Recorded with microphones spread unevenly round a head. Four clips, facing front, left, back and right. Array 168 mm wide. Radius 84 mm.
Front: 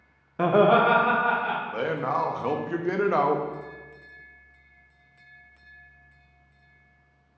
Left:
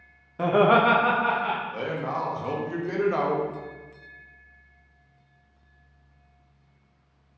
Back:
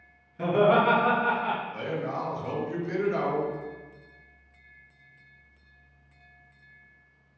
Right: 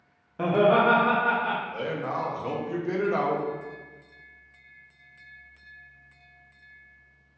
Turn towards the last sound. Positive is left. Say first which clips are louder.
# left 1 dB, front 5 dB
turn(degrees=5)